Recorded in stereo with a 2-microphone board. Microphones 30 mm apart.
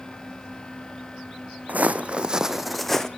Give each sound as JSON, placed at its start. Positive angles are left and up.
{"t": 1.7, "sound": "footsteps", "side_deg": -65, "distance_m": 0.9}